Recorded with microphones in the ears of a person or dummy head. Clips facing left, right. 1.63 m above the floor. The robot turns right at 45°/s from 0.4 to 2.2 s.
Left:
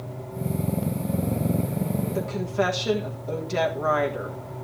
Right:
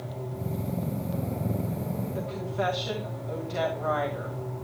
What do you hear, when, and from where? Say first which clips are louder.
2.1 s a woman speaking: left 6 dB; 70° left (ahead or behind), 1.5 m; by 4.4 s 65° left (ahead or behind), 1.5 m